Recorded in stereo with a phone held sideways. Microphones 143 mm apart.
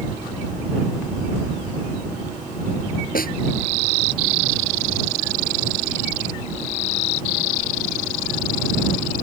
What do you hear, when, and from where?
3.1 s a snare drum: 90° left